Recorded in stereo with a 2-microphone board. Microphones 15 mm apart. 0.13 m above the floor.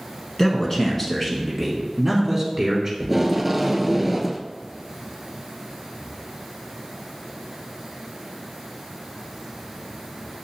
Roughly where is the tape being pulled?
Centre.